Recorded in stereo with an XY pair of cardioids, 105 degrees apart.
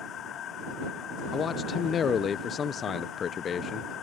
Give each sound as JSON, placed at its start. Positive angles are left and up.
{"t": 0.0, "sound": "a machine running", "azimuth_deg": 65}
{"t": 1.3, "sound": "a man speaking", "azimuth_deg": 50}